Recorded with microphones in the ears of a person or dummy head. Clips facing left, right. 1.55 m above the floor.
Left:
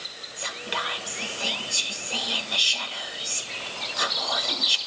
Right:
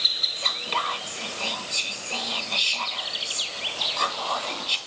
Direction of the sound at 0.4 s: 10° left (ahead or behind).